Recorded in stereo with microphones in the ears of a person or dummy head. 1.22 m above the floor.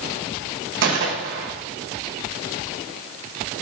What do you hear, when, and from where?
0.8 s a gunshot: 55° right (ahead or behind), 1.0 m